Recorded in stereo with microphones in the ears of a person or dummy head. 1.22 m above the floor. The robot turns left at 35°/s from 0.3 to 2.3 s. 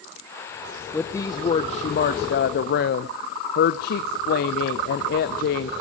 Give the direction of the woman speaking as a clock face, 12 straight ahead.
6 o'clock.